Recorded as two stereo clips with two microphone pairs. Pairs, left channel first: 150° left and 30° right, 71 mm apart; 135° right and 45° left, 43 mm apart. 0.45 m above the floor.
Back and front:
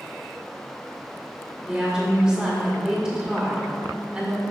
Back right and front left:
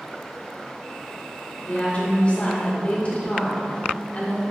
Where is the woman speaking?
100° right, 1.6 m.